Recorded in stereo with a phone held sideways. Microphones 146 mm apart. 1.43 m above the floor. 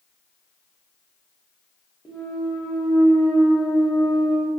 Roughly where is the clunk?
Centre.